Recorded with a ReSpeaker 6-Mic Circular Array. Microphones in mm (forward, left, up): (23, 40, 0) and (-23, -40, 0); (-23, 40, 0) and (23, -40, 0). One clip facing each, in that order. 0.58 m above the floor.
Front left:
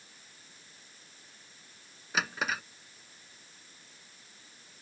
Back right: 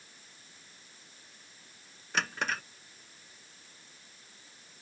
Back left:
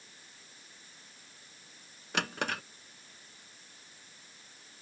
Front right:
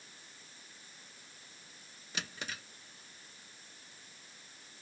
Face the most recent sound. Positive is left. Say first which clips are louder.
# even, back left 10 dB
turn(degrees=145)